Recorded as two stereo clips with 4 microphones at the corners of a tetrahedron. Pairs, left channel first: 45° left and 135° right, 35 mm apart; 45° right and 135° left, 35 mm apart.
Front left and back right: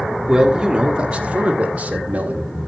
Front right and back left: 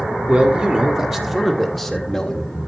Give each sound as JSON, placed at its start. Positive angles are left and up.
{"t": 0.3, "sound": "a man speaking", "azimuth_deg": 165, "distance_m": 1.4}